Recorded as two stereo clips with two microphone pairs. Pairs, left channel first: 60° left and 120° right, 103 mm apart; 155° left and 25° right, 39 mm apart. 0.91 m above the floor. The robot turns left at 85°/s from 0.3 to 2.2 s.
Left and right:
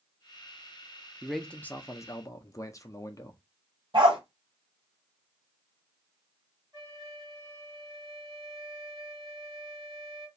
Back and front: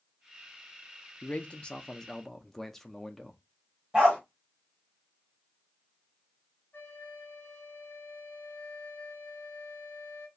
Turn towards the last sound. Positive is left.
turn(degrees=-175)